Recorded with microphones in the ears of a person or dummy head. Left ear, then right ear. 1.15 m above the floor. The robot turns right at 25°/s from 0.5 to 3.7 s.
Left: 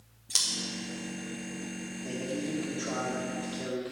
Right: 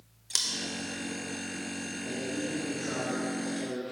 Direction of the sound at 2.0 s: 125° left.